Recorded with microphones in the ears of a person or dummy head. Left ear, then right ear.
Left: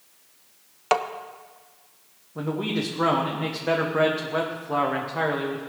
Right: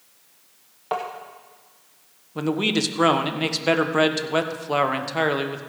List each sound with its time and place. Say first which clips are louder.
0.9 s tapping: left 5 dB; 65° left (ahead or behind), 0.7 m
2.4 s a man speaking: right 5 dB; 70° right (ahead or behind), 1.1 m